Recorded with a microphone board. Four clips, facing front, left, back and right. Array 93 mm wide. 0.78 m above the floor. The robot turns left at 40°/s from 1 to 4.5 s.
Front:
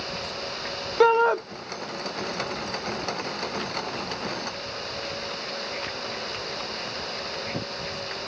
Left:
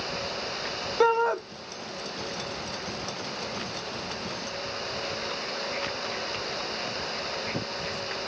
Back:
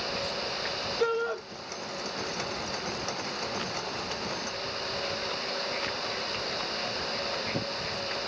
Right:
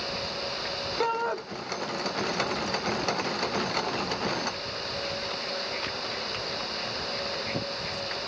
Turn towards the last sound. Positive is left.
turn(degrees=-115)